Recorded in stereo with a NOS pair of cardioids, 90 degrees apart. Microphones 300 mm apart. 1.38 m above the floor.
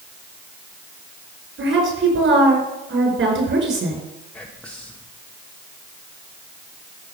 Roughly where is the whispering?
Ahead.